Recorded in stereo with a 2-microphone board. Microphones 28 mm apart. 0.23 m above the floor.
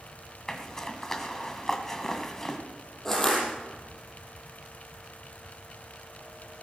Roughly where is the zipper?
Centre.